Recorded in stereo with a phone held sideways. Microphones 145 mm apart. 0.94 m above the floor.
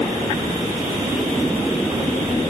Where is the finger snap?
No finger snap in this recording.